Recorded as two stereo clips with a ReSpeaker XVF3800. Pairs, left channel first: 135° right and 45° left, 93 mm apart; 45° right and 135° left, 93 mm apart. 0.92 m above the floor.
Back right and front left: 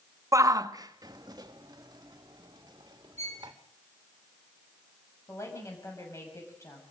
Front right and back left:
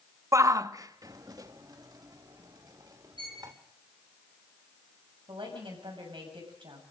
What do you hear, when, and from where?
0.3 s a shout: 90° left, 0.6 m; by 3.5 s 85° left, 3 m
3.2 s a violin: 160° left, 5 m
5.3 s a woman speaking: 165° left, 7 m